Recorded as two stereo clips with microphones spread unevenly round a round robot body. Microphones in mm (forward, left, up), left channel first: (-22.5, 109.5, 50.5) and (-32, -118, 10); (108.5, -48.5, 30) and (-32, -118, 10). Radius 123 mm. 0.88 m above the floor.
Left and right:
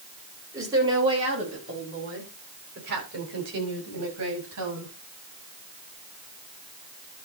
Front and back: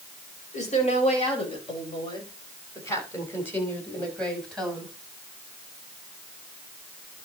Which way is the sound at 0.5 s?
15° right.